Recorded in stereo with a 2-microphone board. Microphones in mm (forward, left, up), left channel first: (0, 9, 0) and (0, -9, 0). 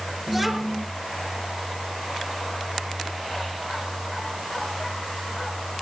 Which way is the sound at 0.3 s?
5° right (ahead or behind).